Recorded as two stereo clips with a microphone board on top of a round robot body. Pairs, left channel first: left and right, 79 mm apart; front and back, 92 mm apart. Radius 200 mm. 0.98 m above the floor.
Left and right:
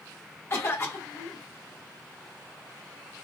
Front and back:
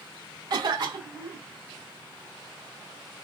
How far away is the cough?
About 1.9 m.